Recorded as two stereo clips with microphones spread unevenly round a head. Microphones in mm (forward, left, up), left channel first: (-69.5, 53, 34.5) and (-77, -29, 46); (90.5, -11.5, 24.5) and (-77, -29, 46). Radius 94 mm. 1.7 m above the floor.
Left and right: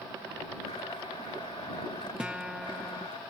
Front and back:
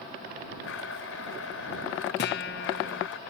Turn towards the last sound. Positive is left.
turn(degrees=-15)